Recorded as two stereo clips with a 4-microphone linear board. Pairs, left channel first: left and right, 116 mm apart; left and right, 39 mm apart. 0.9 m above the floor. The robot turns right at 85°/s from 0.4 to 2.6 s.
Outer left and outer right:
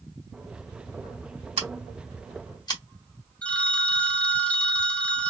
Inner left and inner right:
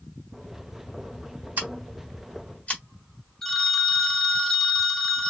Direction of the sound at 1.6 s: 50° right (ahead or behind).